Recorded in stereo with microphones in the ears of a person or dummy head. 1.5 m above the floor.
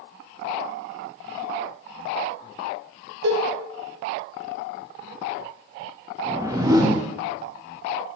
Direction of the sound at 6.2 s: 20° right (ahead or behind).